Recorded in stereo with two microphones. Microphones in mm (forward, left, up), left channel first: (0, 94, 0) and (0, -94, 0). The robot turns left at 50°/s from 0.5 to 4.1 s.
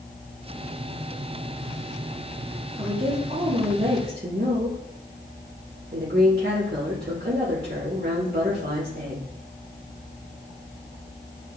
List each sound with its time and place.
2.8 s a woman speaking: 30° right, 1.0 m; by 9.2 s 95° right, 1.0 m